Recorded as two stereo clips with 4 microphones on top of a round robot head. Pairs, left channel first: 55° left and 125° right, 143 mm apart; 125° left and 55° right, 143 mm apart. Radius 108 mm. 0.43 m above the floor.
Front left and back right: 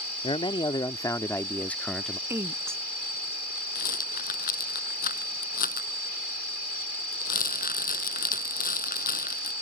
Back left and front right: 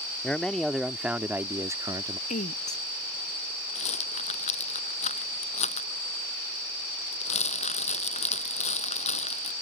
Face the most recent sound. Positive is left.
turn(degrees=80)